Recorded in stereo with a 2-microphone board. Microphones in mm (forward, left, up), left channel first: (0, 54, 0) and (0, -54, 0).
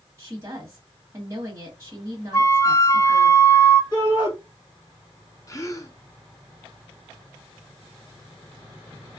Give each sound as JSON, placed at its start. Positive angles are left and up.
{"t": 0.2, "sound": "a woman speaking", "side_deg": -30, "distance_m": 1.4}
{"t": 2.3, "sound": "a flute", "side_deg": 30, "distance_m": 0.5}
{"t": 3.9, "sound": "a shout", "side_deg": 35, "distance_m": 3.0}
{"t": 5.5, "sound": "a gasp", "side_deg": 30, "distance_m": 0.9}